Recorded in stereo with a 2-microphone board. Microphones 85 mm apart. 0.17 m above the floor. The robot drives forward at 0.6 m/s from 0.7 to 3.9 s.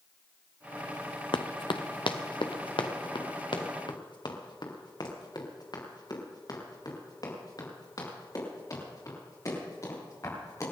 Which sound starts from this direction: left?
Running footsteps, at 1.3 s.